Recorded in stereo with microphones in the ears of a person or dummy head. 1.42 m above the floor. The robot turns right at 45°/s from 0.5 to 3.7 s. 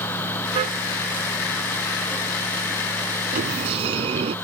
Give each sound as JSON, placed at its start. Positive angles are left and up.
{"t": 0.6, "sound": "a car horn", "side_deg": -40}
{"t": 3.3, "sound": "a sliding door", "side_deg": -50}